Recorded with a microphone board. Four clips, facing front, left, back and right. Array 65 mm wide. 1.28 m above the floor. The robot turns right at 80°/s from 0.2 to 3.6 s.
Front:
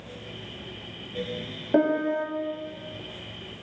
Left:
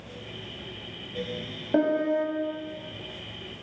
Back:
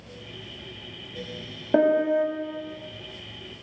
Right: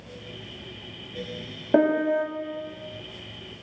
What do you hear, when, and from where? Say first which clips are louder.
1.7 s a piano: right 3 dB, back 3 dB; 115° right, 1.2 m; by 2.2 s 75° right, 1.2 m